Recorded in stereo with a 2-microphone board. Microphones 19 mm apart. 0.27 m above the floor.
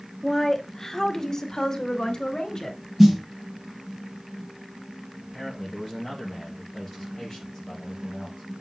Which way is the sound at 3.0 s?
5° right (ahead or behind).